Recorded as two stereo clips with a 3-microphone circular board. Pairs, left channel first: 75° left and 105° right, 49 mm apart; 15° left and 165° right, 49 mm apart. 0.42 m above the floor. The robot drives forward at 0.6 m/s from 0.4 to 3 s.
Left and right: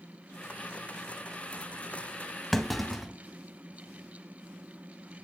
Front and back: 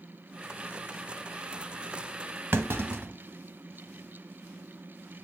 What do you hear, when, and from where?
2.5 s a clunk: 160° left, 0.8 m; by 3.1 s 165° left, 1.1 m